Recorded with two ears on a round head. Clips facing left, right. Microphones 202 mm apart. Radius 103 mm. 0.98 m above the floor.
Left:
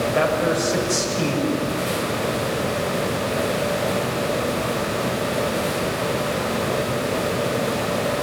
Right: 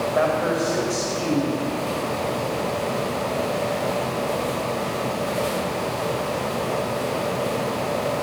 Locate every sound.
0.1 s a man speaking: 40° left (ahead or behind), 5.5 m